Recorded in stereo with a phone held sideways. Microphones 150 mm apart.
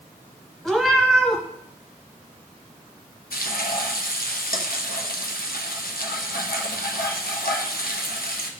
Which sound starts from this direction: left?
Frying, at 3.3 s.